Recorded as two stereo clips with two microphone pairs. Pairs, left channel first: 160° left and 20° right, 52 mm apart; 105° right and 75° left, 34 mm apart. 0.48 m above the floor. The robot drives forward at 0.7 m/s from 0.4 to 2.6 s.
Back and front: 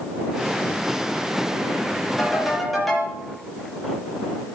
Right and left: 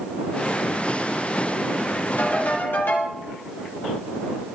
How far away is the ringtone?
About 6.5 m.